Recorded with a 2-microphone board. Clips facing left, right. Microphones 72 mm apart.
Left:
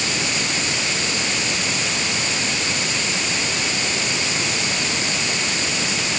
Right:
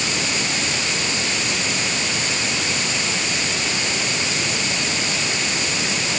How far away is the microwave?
I don't hear a microwave.